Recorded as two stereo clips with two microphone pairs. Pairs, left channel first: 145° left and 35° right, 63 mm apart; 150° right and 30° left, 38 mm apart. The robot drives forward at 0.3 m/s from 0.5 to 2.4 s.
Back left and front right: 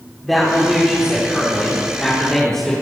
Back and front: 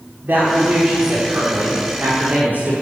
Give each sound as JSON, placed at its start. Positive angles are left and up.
{"t": 0.2, "sound": "a woman speaking", "azimuth_deg": 60, "distance_m": 4.0}